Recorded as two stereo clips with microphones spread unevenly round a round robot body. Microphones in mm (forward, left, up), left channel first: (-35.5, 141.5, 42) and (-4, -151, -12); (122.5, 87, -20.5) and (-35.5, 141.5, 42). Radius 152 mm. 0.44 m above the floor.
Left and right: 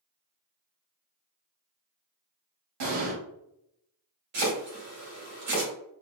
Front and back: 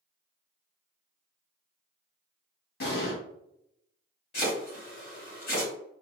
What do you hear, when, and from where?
2.8 s an explosion: 55° right, 1.5 m
4.3 s chopping: 70° right, 1.9 m